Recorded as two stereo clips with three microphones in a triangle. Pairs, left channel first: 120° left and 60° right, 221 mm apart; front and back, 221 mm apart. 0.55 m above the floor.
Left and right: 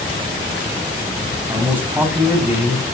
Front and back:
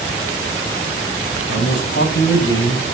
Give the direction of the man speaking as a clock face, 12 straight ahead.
11 o'clock.